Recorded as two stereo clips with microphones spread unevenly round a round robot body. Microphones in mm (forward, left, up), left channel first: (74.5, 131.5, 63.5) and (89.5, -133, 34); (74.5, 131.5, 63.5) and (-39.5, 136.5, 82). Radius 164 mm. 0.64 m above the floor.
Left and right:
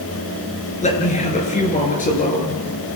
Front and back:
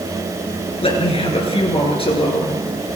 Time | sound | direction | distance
0.8 | a man speaking | 30° left | 10 m